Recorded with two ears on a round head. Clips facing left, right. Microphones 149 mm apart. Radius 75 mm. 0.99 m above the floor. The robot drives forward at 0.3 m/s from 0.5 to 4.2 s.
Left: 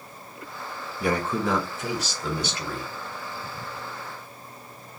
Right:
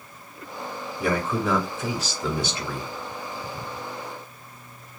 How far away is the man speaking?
About 2 m.